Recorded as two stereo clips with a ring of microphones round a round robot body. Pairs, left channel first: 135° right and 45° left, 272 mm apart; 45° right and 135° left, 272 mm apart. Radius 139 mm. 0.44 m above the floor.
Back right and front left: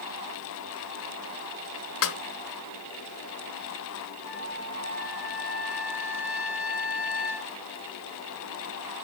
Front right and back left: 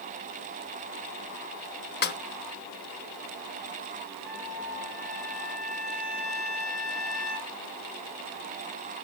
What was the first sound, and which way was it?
A snare drum, 100° right.